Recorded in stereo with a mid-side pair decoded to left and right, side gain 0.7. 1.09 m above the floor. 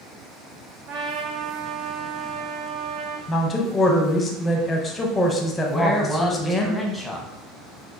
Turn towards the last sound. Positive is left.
turn(degrees=10)